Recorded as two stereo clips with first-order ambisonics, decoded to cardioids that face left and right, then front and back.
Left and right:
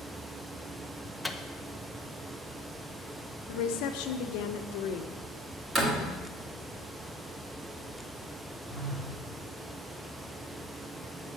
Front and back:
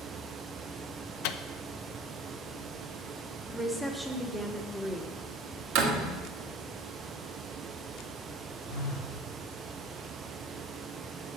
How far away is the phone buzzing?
About 2.0 m.